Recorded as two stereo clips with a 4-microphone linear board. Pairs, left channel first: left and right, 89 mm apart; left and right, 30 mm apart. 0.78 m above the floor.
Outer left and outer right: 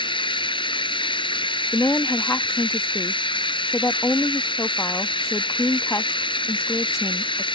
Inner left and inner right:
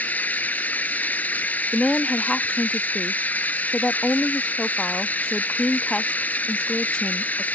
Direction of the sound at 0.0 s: 75° left (ahead or behind).